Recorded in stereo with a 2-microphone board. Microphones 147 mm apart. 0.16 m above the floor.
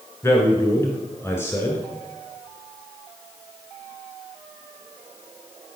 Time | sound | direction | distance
0.2 | a man speaking | 20° left (ahead or behind) | 1.6 m